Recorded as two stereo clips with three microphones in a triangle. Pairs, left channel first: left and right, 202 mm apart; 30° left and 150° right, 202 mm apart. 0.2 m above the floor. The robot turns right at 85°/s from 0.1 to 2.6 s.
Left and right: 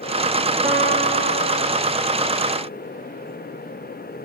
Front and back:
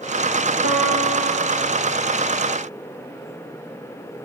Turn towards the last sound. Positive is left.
turn(degrees=15)